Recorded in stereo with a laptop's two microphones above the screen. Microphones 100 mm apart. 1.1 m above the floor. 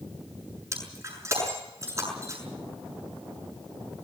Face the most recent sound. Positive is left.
turn(degrees=-30)  # may be behind; listen again after turning